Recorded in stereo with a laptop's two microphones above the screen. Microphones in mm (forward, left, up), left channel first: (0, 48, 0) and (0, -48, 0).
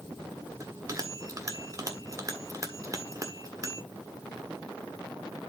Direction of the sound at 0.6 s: 35° right (ahead or behind).